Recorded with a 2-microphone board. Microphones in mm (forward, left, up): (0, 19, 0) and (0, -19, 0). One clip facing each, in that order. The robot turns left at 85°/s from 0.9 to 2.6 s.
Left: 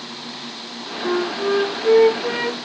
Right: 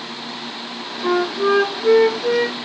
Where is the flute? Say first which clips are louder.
Right 3 dB; 80° right, 1.8 m; by 2.6 s 150° left, 1.8 m.